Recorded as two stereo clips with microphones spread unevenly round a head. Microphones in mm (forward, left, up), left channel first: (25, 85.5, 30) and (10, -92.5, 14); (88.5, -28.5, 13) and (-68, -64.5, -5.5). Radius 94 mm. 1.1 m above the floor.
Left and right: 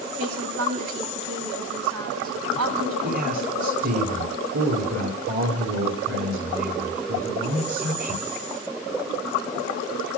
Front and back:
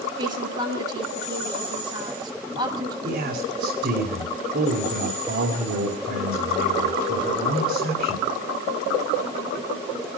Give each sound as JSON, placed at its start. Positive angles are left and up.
{"t": 0.2, "sound": "a woman speaking", "azimuth_deg": -100, "distance_m": 8.0}
{"t": 3.0, "sound": "a man speaking", "azimuth_deg": -140, "distance_m": 2.5}